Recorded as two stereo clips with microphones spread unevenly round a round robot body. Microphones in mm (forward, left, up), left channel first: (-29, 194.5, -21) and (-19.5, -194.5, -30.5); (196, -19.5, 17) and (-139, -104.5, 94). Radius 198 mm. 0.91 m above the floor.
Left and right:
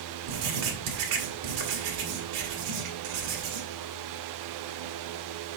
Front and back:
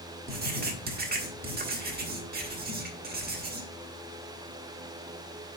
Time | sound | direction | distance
0.3 | writing | 100° right | 1.7 m